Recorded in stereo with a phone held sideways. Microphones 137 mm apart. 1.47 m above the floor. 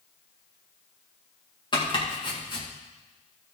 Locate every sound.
1.7 s chopping: 35° left (ahead or behind), 1.9 m